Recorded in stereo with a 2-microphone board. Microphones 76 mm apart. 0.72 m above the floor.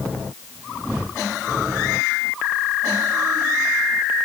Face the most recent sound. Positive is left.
No sound to turn to.